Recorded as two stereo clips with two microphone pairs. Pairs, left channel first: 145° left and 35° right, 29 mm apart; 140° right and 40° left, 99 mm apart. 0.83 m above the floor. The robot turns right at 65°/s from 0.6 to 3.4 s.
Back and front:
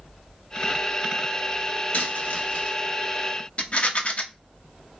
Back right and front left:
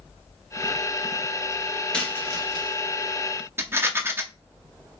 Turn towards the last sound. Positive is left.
turn(degrees=105)